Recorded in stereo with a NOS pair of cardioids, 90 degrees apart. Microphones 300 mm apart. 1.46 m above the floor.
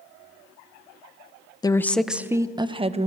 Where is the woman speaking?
15° left, 0.8 m; by 3.1 s 20° right, 1.3 m.